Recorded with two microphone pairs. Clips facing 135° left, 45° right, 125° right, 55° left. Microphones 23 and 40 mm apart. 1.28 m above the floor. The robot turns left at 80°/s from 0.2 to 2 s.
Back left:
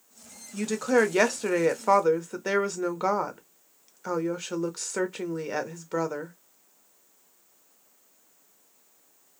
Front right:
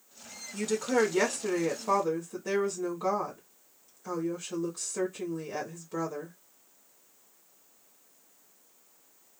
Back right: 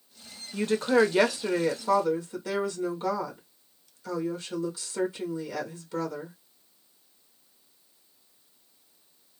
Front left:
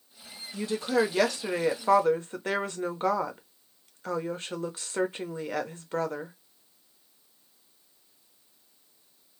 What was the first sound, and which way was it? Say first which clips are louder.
A woman speaking: back left 4 dB, back right 4 dB; 145° right.